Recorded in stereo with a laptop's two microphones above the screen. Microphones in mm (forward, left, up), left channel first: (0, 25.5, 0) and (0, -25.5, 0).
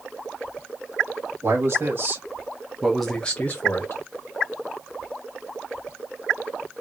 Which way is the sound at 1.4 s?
60° right (ahead or behind).